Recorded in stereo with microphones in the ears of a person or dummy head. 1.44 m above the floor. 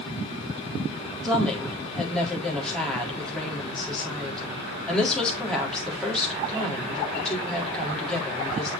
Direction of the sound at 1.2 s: 5° left (ahead or behind).